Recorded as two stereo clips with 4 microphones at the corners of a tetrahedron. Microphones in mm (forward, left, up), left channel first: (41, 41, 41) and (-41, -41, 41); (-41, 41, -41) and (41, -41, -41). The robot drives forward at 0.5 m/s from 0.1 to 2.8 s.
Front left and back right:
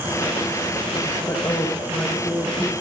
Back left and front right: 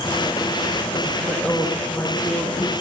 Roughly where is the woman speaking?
Ahead left.